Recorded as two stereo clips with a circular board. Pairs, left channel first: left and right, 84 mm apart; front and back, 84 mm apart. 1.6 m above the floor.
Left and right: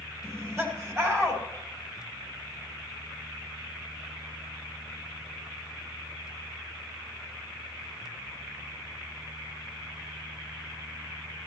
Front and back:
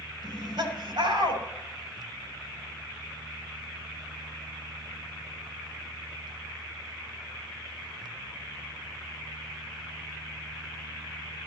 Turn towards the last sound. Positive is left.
turn(degrees=-150)